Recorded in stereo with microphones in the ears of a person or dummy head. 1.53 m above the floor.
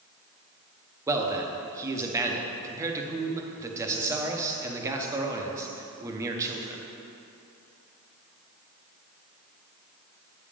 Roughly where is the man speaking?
Centre.